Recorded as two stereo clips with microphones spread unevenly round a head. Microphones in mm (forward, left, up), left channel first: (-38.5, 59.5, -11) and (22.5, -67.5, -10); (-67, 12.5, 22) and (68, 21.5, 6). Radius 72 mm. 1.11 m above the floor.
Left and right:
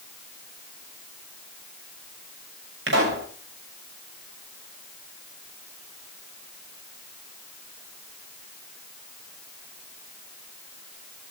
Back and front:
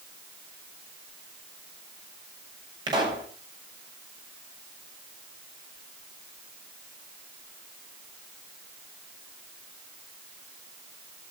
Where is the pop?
60° right, 6.5 m.